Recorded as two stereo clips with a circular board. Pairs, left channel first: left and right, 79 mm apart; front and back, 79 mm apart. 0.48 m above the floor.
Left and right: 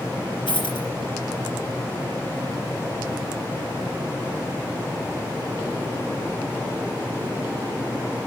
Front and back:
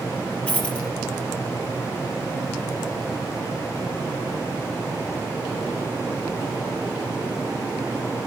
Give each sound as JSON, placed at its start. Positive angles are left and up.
{"t": 0.5, "sound": "a dropped coin", "azimuth_deg": 75, "distance_m": 3.5}